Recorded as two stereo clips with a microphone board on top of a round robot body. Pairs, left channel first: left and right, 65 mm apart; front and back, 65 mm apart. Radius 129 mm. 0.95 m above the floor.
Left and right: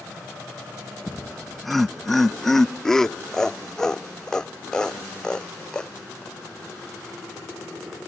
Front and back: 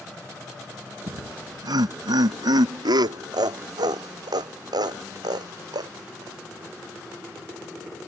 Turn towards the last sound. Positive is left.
turn(degrees=170)